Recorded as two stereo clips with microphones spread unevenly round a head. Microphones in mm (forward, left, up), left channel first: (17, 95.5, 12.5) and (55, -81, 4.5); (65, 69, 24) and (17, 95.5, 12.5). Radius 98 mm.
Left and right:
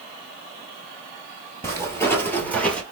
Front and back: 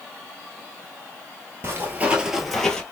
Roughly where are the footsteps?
Behind.